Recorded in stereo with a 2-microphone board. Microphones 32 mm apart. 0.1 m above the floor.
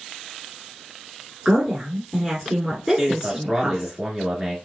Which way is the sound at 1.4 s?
15° right (ahead or behind).